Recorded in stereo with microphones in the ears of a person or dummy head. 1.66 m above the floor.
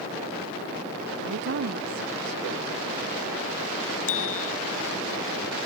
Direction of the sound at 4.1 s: 85° left.